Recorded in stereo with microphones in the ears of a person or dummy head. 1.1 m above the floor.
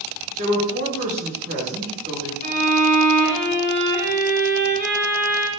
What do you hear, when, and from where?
0.4 s a woman speaking: 40° right (ahead or behind), 1.6 m
2.4 s a violin: 50° right (ahead or behind), 1.7 m